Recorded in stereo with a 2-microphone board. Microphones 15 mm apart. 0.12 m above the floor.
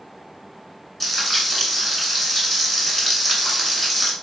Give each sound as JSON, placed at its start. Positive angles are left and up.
{"t": 1.0, "sound": "frying", "side_deg": 5, "distance_m": 1.4}